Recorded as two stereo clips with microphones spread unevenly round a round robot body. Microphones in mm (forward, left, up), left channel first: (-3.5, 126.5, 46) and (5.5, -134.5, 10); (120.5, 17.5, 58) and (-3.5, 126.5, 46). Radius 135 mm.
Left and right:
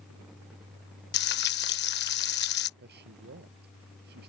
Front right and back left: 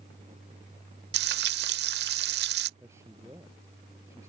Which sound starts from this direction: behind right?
A man speaking, at 2.8 s.